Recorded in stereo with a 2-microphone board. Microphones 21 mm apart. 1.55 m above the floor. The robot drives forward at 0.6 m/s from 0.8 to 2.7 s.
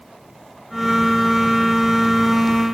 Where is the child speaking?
I don't hear a child speaking.